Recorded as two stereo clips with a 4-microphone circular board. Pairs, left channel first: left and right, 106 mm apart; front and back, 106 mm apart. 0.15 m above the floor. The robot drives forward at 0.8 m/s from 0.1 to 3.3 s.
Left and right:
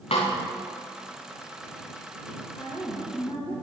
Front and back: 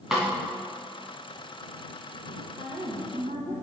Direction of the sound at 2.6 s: 155° left.